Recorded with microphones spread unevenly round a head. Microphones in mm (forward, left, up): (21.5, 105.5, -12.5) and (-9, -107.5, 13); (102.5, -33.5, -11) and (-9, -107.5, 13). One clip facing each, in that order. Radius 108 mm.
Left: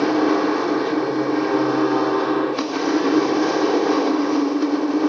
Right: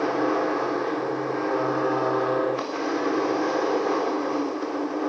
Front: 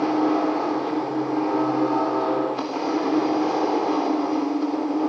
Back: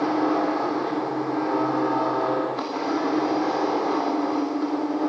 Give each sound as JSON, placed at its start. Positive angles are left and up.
{"t": 0.0, "sound": "a machine running", "azimuth_deg": 120, "distance_m": 3.5}